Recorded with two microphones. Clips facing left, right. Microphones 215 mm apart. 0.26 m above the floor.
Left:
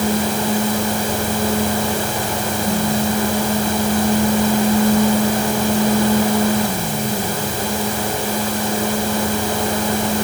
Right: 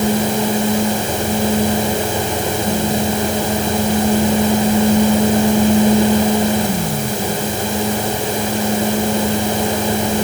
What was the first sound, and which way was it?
Only background noise.